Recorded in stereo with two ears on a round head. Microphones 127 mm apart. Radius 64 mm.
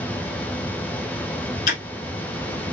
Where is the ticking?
60° left (ahead or behind), 1.8 m.